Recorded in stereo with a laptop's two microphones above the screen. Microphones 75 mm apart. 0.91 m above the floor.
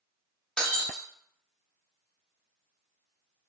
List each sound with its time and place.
0.6 s breaking glass: 10° left (ahead or behind), 0.5 m